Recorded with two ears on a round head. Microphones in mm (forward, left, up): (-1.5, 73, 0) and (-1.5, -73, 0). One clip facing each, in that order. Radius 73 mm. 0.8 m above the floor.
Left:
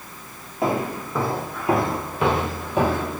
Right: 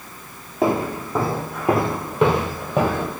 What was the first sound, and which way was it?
Footsteps, 20° right (ahead or behind).